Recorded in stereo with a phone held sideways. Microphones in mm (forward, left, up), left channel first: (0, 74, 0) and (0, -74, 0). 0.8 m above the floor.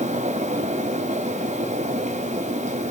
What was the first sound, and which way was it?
A fan, 55° right (ahead or behind).